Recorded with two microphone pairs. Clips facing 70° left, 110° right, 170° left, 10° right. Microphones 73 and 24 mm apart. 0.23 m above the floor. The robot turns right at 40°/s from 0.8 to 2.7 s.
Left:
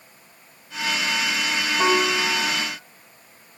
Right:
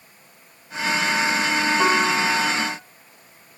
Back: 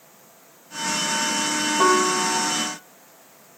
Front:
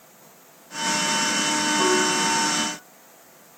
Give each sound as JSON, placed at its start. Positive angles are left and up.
{"t": 1.8, "sound": "a piano", "azimuth_deg": 165, "distance_m": 1.1}